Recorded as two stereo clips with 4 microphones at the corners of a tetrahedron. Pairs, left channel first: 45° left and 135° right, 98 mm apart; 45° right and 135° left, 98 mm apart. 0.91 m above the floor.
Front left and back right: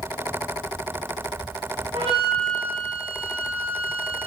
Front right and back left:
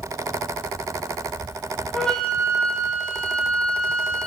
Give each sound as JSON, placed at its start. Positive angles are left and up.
{"t": 1.9, "sound": "a flute", "azimuth_deg": -130, "distance_m": 2.5}